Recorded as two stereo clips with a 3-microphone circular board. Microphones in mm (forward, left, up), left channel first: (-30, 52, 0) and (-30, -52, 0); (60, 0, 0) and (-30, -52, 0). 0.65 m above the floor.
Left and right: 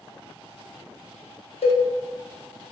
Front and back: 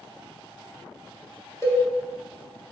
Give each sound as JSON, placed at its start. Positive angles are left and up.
{"t": 1.6, "sound": "a cowbell", "azimuth_deg": 90, "distance_m": 0.8}